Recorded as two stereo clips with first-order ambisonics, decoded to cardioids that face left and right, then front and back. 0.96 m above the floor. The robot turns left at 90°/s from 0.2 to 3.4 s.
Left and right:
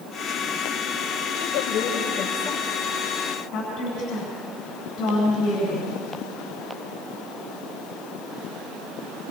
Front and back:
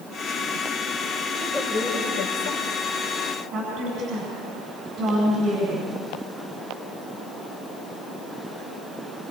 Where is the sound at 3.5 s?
135° left, 8.5 m.